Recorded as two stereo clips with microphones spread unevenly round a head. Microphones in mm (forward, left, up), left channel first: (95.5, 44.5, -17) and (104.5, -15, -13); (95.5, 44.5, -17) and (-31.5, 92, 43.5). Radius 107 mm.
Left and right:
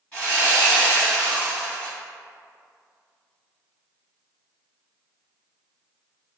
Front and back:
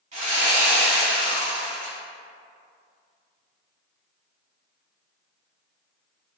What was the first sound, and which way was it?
Sawing, 175° left.